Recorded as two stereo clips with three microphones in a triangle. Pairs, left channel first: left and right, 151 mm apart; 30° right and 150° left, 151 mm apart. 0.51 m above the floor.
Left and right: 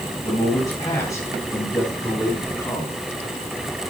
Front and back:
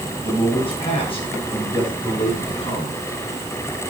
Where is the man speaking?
25° left, 10 m; by 3.0 s 20° left, 7.5 m.